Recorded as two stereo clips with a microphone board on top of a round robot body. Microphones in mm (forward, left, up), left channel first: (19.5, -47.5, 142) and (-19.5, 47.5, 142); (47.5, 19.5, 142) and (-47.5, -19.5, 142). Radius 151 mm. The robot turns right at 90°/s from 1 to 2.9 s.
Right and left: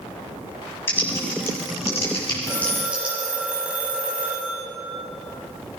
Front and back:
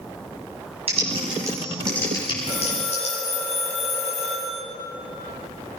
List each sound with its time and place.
0.9 s typing on a keyboard: 135° right, 7.5 m; by 3.1 s 35° left, 7.5 m
2.4 s a phone ringing: 10° right, 4.5 m; by 4.6 s 35° left, 4.5 m